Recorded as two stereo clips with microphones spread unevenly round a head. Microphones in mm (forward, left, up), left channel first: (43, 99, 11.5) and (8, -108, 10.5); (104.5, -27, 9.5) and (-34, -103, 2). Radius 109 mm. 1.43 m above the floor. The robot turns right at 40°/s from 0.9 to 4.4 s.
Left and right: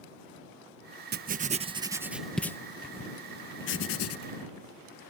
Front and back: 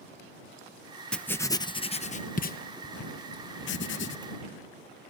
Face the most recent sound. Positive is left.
turn(degrees=75)